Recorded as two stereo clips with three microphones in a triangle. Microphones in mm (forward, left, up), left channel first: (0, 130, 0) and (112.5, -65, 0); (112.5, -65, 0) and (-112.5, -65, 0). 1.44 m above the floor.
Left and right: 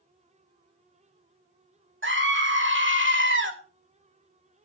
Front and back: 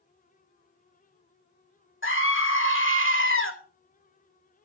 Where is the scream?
30° right, 2.5 m.